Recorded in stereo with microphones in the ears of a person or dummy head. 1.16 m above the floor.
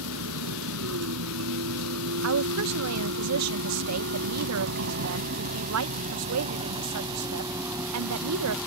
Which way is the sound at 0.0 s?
85° right.